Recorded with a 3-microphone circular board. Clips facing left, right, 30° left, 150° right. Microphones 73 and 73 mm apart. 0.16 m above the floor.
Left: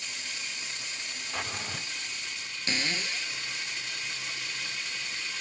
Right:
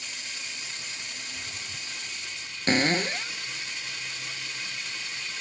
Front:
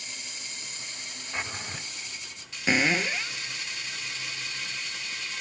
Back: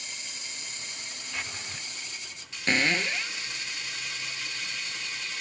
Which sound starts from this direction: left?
A drawer, at 1.3 s.